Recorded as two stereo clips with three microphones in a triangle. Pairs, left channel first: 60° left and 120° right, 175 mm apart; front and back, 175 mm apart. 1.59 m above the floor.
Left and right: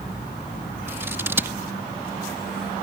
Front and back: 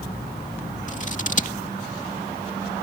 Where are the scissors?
45° right.